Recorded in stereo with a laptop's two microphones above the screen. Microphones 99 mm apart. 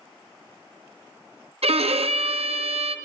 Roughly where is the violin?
Right.